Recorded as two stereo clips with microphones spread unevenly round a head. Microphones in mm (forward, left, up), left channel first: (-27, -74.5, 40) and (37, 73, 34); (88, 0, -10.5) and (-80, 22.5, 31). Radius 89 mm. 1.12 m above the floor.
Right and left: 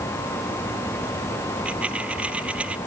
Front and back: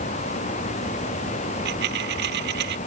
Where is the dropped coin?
150° left.